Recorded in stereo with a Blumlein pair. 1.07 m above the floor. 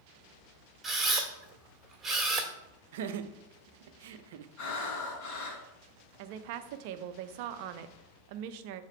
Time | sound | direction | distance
0.8 | a camera shutter | 10° right | 1.6 m
2.9 | laughter | 55° right | 0.5 m
4.6 | breathing | 40° left | 2.5 m
6.2 | a woman speaking | 45° right | 0.5 m